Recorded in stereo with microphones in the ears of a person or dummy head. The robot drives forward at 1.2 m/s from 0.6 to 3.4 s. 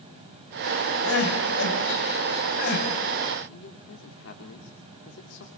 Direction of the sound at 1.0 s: 70° left (ahead or behind).